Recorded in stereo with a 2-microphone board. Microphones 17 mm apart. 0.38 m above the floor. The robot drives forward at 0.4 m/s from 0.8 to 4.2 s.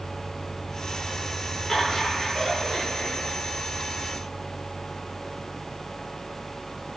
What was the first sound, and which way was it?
Laughter, 45° left (ahead or behind).